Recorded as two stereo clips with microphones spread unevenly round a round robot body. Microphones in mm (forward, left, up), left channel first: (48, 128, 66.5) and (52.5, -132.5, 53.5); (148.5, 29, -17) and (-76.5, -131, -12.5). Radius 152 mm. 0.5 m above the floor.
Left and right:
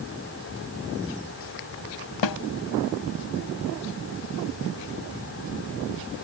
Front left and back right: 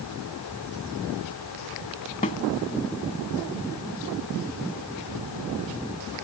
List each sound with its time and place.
2.2 s a snare drum: 105° left